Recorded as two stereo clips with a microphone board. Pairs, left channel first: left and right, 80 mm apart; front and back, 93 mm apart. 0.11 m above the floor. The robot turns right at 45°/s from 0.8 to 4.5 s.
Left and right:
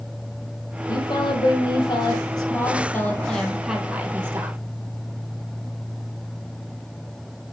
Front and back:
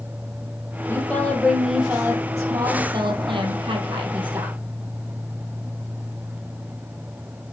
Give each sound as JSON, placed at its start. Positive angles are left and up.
{"t": 0.9, "sound": "a woman speaking", "azimuth_deg": 60, "distance_m": 3.0}